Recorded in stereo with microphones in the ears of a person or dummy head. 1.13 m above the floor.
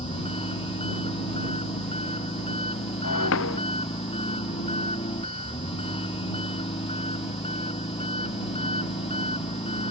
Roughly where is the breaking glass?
Left.